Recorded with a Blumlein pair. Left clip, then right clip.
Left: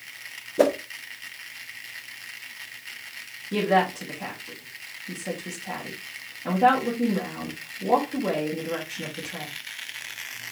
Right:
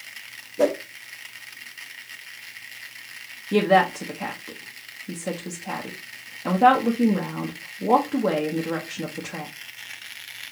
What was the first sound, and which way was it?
A whoosh, 25° left.